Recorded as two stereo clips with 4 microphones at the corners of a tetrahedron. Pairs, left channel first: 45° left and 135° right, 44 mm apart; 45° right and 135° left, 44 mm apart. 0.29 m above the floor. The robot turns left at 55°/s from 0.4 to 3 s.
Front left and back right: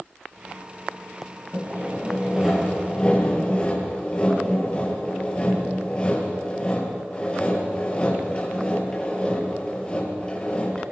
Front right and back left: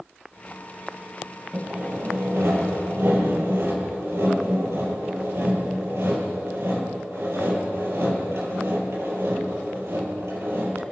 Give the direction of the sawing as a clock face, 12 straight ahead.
5 o'clock.